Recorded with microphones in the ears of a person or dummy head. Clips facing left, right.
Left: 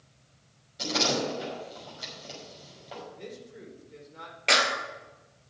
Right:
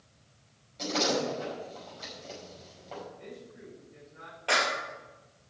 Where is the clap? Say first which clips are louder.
Left 2 dB; 25° left (ahead or behind), 2.5 m.